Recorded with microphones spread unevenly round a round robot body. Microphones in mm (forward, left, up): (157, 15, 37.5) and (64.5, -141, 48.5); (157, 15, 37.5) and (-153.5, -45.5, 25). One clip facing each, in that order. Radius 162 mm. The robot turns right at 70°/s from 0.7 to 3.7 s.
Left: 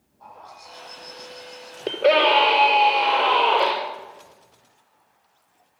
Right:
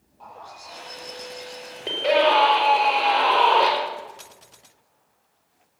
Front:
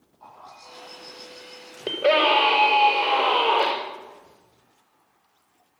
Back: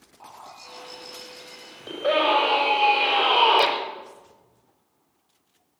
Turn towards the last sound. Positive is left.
turn(degrees=145)